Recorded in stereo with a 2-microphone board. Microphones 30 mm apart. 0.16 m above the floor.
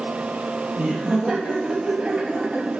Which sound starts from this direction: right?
Laughter, at 0.8 s.